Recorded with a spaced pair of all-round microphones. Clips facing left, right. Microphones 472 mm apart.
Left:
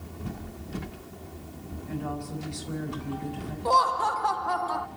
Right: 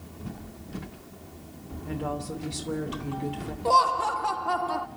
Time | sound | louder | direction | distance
1.9 | a woman speaking | right 2 dB | 85° right | 3 m
3.6 | laughter | right 1 dB | 50° right (ahead or behind) | 0.6 m